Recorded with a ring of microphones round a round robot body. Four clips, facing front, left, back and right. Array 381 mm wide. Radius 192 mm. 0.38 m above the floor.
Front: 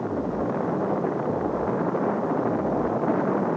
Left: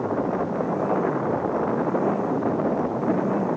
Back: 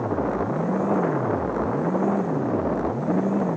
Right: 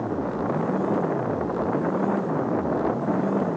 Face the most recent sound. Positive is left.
No sound to turn to.